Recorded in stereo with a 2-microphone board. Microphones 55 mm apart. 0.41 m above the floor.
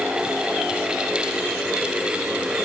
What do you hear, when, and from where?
Only background noise.